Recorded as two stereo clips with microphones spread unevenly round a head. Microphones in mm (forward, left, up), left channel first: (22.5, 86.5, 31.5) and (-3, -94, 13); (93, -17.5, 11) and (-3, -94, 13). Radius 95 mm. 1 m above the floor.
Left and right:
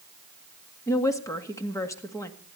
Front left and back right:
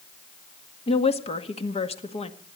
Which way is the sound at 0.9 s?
5° left.